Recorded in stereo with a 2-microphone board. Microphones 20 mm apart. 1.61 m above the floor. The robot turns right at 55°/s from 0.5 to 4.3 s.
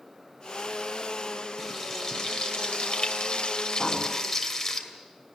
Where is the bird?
45° left (ahead or behind), 6 m; by 4.0 s 35° left (ahead or behind), 6 m.